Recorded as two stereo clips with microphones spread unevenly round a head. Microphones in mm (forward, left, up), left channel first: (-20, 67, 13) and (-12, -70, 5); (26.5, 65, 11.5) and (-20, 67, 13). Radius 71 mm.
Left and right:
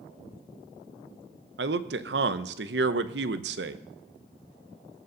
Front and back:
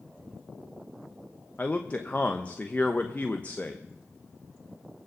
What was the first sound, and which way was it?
A man speaking, 80° right.